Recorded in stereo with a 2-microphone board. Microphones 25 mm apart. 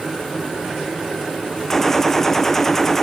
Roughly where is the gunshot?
Centre.